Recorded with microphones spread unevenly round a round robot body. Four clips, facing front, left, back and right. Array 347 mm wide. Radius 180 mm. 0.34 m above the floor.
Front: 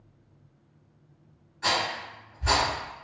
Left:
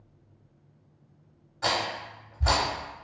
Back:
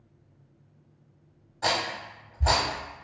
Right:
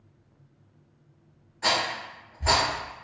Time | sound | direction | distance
1.6 | a rattle | 160° left | 0.8 m